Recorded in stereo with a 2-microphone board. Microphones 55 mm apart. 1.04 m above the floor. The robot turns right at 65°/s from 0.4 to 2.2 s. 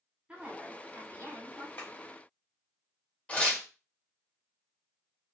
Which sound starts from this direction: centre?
Tearing paper, at 3.3 s.